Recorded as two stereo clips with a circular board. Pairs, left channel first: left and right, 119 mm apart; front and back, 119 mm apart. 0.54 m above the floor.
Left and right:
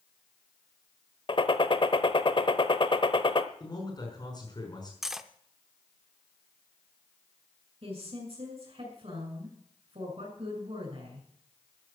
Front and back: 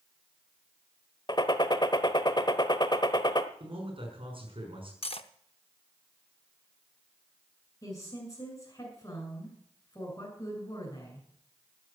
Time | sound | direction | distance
1.3 | a gunshot | 50° left | 1.0 m
3.6 | a man speaking | 140° left | 5.5 m
5.0 | cutlery clinking | 5° right | 0.7 m
7.8 | a woman speaking | 60° right | 6 m